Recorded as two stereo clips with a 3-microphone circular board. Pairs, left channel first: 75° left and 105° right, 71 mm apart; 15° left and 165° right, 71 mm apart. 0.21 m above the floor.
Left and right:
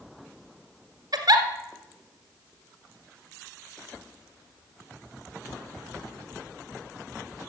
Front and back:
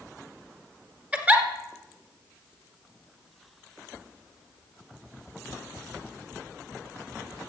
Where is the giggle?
95° right, 1.5 m.